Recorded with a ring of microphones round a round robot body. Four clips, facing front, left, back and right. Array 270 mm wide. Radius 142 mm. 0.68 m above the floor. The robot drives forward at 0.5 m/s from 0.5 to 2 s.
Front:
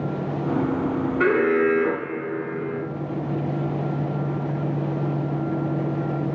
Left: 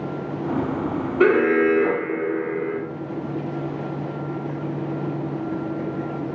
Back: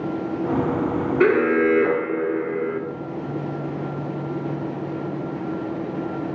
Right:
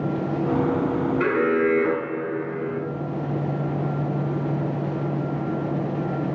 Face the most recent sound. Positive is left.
turn(degrees=135)